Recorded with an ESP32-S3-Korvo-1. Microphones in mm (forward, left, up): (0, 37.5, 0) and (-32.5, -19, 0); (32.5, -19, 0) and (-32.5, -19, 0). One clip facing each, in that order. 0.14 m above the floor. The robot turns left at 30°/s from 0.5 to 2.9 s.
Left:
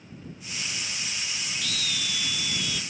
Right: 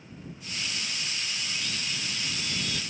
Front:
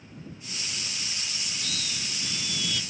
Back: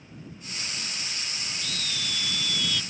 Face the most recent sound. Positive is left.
turn(degrees=-80)